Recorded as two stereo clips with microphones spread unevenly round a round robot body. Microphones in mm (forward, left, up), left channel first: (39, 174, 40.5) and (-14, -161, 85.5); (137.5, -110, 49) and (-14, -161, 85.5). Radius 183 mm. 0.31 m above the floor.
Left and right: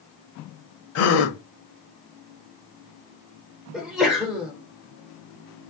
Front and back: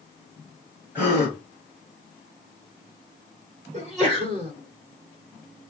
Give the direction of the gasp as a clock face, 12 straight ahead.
8 o'clock.